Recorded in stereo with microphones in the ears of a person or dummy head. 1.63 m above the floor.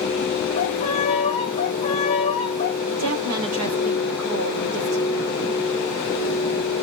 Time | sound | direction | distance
0.6 | a violin | 40° left (ahead or behind) | 1.1 m
2.9 | a woman speaking | 80° right | 1.3 m